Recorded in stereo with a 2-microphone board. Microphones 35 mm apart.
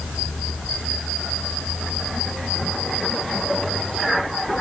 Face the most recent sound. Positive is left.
No sound to turn to.